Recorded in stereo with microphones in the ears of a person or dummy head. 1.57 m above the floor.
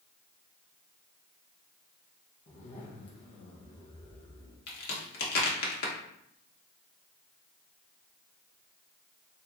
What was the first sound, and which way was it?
A zipper, 40° left (ahead or behind).